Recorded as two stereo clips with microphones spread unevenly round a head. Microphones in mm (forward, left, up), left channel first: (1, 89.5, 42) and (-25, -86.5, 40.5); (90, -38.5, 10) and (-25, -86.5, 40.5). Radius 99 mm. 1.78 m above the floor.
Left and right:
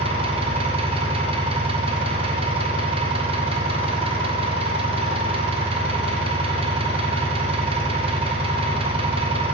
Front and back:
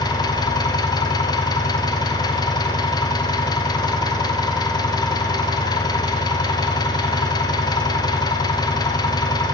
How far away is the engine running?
About 0.9 m.